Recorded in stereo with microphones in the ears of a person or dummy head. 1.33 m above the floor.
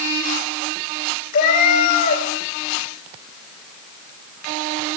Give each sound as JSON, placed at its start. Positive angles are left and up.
{"t": 1.3, "sound": "a cat meowing", "side_deg": 45, "distance_m": 1.8}